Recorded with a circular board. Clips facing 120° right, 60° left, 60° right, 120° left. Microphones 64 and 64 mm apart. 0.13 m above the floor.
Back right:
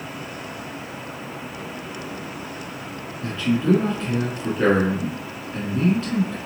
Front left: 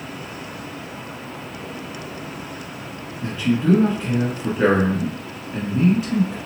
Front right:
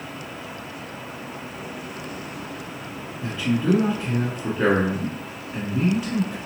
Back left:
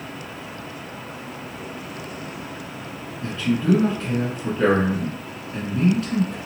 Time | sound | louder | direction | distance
3.2 | a man speaking | front left 2 dB, back left 1 dB | straight ahead | 1.1 m